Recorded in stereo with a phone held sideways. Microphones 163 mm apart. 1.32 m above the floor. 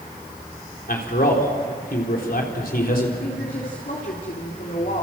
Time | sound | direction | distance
0.9 | a man speaking | 65° left (ahead or behind) | 4 m
3.2 | a woman speaking | 60° left (ahead or behind) | 3 m